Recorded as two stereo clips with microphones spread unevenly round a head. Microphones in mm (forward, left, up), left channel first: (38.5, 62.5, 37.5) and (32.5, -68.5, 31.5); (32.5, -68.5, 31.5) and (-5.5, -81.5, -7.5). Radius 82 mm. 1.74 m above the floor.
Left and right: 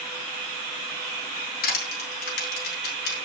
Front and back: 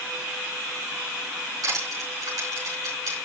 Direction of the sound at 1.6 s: 115° left.